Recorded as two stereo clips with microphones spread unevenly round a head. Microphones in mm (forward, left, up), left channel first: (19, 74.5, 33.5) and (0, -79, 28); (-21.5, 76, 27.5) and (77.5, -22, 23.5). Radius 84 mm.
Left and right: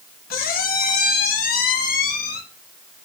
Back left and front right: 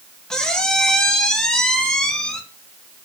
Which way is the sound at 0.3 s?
50° left.